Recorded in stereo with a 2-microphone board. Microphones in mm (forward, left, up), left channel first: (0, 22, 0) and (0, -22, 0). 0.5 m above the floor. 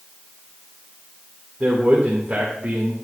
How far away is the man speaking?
About 1.8 m.